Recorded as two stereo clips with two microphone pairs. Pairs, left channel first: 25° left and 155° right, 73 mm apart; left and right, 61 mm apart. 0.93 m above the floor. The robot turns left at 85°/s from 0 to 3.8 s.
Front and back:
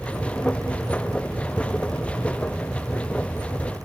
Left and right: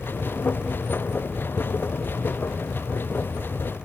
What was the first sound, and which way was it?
Only background noise.